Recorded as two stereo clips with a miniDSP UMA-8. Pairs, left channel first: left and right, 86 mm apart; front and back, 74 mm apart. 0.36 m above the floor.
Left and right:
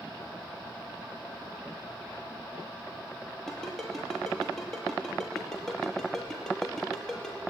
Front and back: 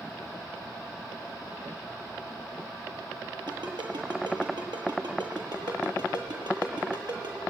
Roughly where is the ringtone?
Behind.